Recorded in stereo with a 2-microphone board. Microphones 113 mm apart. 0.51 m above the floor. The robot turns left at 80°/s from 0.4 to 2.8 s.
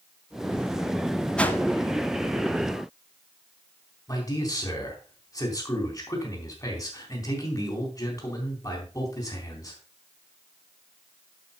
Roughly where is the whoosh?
Centre.